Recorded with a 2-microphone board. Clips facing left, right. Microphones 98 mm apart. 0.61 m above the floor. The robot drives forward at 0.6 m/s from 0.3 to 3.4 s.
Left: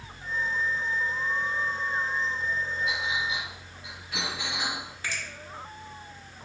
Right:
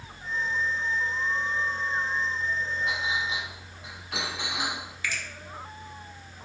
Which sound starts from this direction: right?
A clink, at 2.9 s.